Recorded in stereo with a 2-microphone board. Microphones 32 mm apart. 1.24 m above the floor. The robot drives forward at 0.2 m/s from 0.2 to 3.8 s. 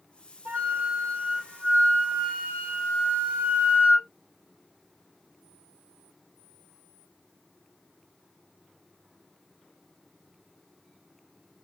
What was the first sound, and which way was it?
A flute, 65° right (ahead or behind).